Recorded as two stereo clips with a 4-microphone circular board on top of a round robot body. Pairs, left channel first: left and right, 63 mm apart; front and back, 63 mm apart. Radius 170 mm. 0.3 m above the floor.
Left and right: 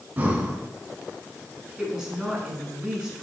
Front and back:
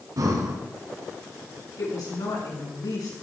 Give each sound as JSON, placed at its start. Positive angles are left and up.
{"t": 0.2, "sound": "breathing", "azimuth_deg": -155, "distance_m": 2.5}
{"t": 1.8, "sound": "a woman speaking", "azimuth_deg": -10, "distance_m": 6.0}